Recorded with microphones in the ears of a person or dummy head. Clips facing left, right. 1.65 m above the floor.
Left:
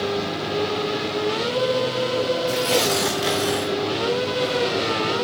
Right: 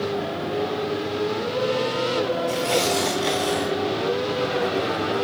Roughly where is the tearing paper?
Centre.